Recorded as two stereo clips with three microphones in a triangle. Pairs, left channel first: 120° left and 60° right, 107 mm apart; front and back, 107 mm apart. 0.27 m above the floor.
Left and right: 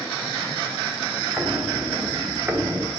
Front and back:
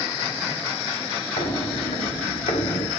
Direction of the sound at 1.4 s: 10° left.